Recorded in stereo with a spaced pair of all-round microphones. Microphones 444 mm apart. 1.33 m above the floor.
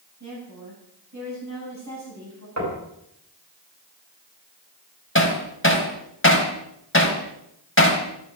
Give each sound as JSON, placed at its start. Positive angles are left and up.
{"t": 0.2, "sound": "a woman speaking", "side_deg": -40, "distance_m": 9.5}
{"t": 2.6, "sound": "knocking", "side_deg": -40, "distance_m": 5.5}
{"t": 5.2, "sound": "hammering", "side_deg": 30, "distance_m": 2.5}